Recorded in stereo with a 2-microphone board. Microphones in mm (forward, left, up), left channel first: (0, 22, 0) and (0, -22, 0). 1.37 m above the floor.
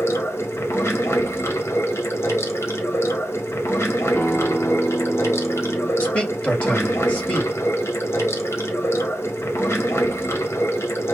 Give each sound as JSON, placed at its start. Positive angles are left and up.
{"t": 0.0, "sound": "running water", "side_deg": 85, "distance_m": 1.4}
{"t": 4.2, "sound": "a guitar", "side_deg": 40, "distance_m": 1.3}
{"t": 6.0, "sound": "a man speaking", "side_deg": 25, "distance_m": 3.0}